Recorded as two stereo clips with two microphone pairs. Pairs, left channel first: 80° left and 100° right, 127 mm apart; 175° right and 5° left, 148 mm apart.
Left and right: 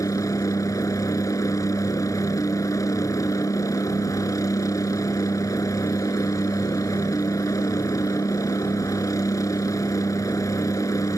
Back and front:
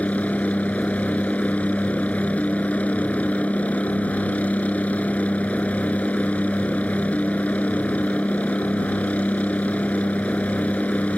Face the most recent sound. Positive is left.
turn(degrees=115)